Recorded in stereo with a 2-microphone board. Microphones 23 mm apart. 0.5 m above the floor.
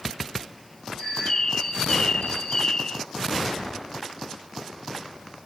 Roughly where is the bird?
Left.